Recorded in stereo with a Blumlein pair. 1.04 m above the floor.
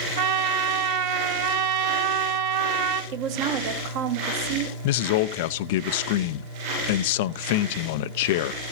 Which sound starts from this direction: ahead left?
A man speaking, at 4.8 s.